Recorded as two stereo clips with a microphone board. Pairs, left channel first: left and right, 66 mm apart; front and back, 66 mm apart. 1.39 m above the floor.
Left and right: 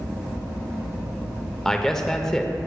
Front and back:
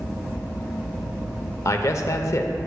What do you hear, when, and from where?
1.6 s a man speaking: 10° left, 0.7 m